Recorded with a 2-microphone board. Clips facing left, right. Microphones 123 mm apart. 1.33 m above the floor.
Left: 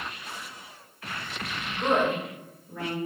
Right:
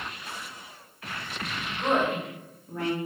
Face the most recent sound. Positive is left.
turn(degrees=-55)  # may be behind; listen again after turning